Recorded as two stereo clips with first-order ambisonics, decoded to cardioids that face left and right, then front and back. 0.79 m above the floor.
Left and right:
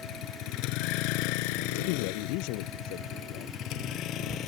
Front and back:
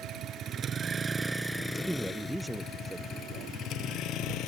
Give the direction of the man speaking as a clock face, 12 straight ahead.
9 o'clock.